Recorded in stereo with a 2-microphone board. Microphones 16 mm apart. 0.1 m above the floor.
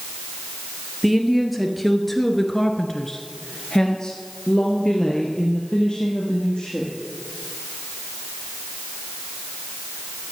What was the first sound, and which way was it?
A woman speaking, 10° right (ahead or behind).